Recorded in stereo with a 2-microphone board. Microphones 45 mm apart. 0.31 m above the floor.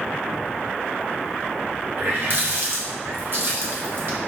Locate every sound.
2.0 s a running tap: 50° right (ahead or behind), 1.2 m